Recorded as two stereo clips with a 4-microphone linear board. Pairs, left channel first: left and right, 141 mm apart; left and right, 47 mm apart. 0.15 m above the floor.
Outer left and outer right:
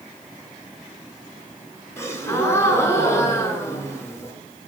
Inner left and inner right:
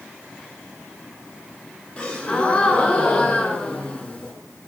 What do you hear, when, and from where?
2.0 s a gasp: 20° left (ahead or behind), 0.7 m